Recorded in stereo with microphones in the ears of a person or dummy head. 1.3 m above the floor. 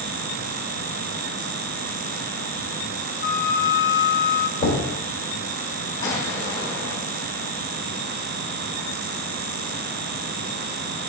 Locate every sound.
3.2 s a flute: 45° left (ahead or behind), 1.0 m
4.6 s knocking: 50° left (ahead or behind), 3.5 m
6.0 s an explosion: 65° left (ahead or behind), 3.5 m